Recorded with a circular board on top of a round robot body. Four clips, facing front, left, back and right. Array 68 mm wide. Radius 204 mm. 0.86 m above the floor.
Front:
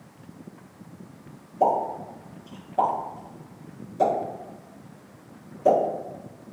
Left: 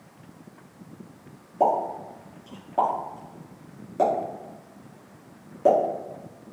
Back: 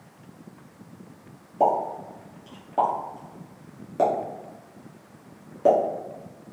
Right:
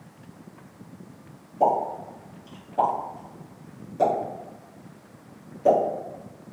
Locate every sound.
1.6 s a pop: 150° left, 1.3 m